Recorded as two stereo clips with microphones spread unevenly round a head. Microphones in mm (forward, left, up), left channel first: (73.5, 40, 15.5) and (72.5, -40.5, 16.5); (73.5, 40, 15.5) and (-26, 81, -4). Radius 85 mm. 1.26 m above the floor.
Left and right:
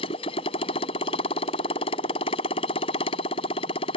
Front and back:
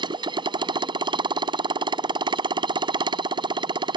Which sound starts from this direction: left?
A motorcycle, at 0.0 s.